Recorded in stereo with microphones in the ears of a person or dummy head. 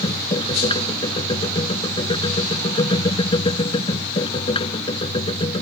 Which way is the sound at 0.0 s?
30° left (ahead or behind).